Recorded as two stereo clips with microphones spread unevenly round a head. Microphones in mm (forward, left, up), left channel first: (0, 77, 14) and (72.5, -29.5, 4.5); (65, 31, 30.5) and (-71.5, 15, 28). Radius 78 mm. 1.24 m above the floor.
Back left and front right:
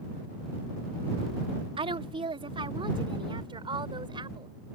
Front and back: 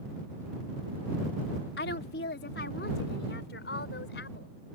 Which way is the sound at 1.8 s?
5° right.